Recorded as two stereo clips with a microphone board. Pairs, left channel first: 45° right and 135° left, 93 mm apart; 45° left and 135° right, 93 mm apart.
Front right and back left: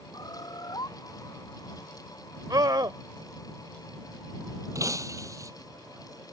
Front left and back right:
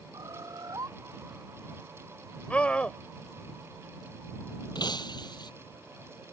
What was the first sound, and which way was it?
A bird, 85° right.